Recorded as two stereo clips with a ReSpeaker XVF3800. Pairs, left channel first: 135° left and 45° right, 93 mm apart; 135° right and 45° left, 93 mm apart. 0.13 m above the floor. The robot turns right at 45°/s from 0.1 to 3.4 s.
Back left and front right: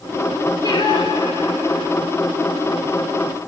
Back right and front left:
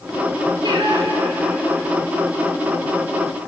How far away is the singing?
About 3 m.